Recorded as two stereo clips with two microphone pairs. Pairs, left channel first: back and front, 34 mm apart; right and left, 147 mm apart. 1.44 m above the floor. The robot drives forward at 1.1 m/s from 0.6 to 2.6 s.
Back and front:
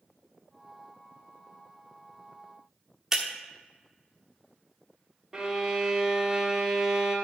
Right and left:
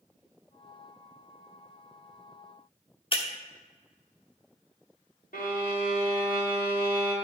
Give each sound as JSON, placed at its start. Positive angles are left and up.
{"t": 3.1, "sound": "breaking glass", "azimuth_deg": -70, "distance_m": 1.2}
{"t": 5.3, "sound": "a violin", "azimuth_deg": -75, "distance_m": 1.9}